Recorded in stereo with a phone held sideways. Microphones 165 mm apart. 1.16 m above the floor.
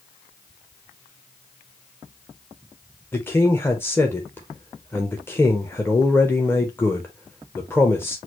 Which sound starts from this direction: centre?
A man speaking, at 3.1 s.